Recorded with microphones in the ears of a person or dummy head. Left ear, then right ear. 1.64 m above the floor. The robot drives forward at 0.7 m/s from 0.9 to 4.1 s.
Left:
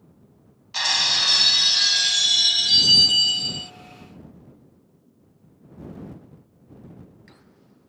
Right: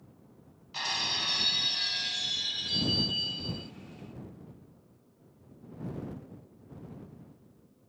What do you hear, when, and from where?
0.7 s breaking glass: 40° left (ahead or behind); by 3.7 s 55° left (ahead or behind)